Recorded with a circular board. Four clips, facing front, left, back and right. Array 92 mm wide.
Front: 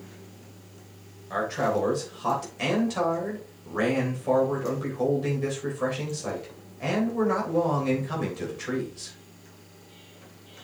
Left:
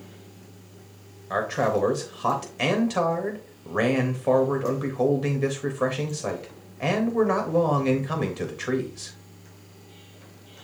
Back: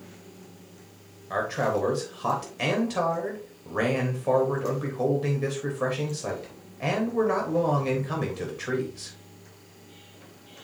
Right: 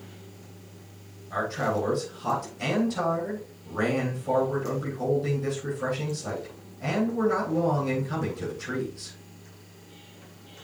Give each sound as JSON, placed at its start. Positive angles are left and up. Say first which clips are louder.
{"t": 1.3, "sound": "a man speaking", "louder": "left 4 dB, even", "azimuth_deg": 105, "distance_m": 3.0}